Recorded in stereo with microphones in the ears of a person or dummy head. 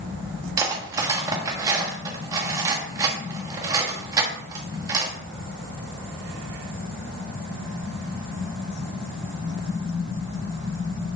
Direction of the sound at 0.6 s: 20° right (ahead or behind).